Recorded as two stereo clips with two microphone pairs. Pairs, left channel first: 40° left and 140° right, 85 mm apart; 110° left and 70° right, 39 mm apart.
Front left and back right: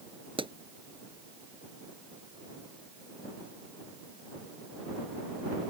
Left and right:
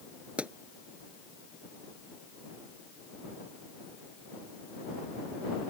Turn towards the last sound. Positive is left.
turn(degrees=-135)